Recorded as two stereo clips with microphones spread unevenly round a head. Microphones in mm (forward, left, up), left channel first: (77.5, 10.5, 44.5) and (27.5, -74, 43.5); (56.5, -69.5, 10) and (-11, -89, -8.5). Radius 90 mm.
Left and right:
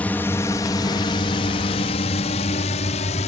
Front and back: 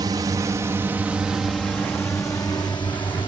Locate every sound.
0.0 s a drone: 140° left; by 3.3 s 75° left